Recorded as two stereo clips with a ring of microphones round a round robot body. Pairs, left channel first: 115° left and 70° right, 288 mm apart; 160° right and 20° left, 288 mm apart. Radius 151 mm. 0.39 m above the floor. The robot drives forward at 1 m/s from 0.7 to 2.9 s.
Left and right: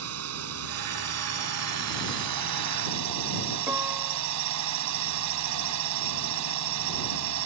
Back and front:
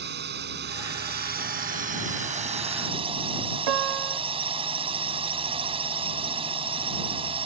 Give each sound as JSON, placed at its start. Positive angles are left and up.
{"t": 0.0, "sound": "a drone", "azimuth_deg": -30}
{"t": 3.7, "sound": "a piano", "azimuth_deg": 15}